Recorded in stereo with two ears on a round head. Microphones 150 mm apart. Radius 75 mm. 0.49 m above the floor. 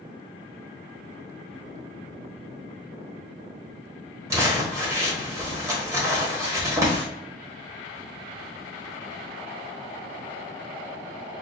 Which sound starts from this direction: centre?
Crumpling, at 4.3 s.